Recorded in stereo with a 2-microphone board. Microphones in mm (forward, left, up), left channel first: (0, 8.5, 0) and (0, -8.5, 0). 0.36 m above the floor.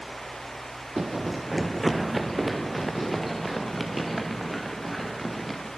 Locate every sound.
1.0 s running footsteps: 25° right (ahead or behind), 0.7 m; by 5.7 s centre (ahead or behind), 5.5 m